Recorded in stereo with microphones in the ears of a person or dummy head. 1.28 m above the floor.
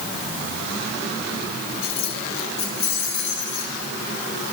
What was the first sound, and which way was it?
Keys jangling, 35° left (ahead or behind).